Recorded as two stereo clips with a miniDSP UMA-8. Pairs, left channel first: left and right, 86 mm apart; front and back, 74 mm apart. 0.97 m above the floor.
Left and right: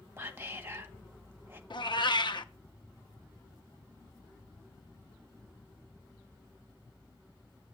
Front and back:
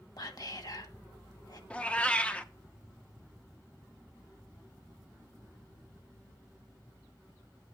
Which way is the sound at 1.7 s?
70° left.